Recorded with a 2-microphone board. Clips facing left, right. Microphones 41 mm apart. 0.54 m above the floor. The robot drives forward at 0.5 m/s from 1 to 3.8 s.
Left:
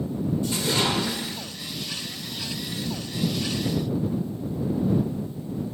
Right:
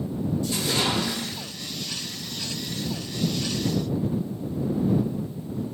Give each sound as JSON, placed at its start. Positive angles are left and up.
{"t": 0.4, "sound": "a splash", "side_deg": 30, "distance_m": 0.9}